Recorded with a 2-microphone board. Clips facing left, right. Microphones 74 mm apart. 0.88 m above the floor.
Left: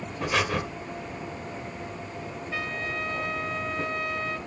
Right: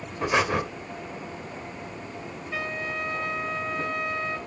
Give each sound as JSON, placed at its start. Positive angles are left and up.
{"t": 0.2, "sound": "breathing", "side_deg": -20, "distance_m": 1.4}
{"t": 2.5, "sound": "a trumpet", "side_deg": -5, "distance_m": 0.8}